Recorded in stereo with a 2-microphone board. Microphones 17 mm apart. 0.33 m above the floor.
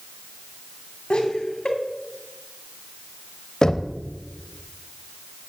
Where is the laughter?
60° left (ahead or behind), 3 m.